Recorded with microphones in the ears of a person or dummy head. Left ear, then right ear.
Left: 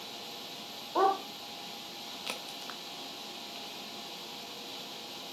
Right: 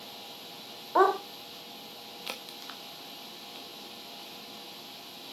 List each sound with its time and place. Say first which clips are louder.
0.9 s a dog barking: right 4 dB; 45° right (ahead or behind), 1.5 m
2.3 s a crack: even; 10° right (ahead or behind), 1.3 m